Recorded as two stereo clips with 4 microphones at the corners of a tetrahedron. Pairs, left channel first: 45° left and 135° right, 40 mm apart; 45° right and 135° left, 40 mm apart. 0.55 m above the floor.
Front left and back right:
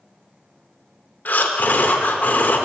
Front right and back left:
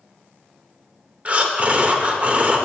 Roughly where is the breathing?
Left.